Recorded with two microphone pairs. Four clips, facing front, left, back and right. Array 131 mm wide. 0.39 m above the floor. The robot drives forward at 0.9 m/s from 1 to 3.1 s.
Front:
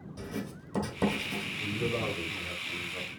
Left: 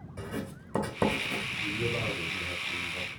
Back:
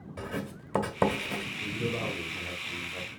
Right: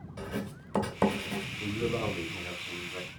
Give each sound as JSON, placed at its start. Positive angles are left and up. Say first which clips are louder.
{"t": 0.2, "sound": "writing", "louder": "even, back 2 dB", "azimuth_deg": 180, "distance_m": 1.4}
{"t": 1.6, "sound": "a man speaking", "louder": "right 3 dB, front 2 dB", "azimuth_deg": -85, "distance_m": 1.8}